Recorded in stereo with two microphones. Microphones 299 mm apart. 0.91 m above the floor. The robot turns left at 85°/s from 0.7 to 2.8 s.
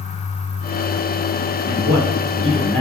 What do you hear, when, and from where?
1.6 s a man speaking: 90° right, 3 m; by 2.8 s 170° left, 3 m